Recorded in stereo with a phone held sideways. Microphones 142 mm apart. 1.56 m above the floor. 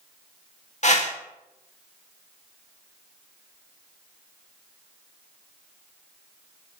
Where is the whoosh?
55° left (ahead or behind), 1.5 m.